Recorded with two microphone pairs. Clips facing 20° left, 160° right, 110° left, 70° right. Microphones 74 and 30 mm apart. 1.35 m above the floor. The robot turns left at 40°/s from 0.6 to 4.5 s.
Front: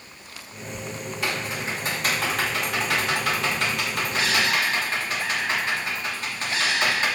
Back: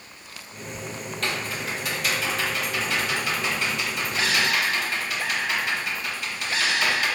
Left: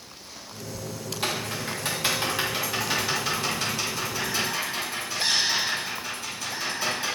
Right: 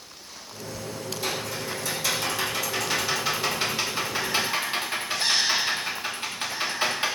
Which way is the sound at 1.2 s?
95° left.